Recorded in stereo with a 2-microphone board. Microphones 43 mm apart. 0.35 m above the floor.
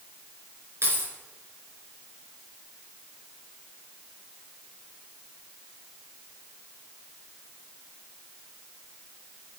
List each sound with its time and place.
0.8 s keys jangling: 80° right, 4 m